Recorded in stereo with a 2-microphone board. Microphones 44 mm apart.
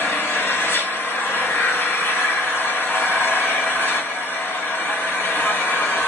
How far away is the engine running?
About 1.3 m.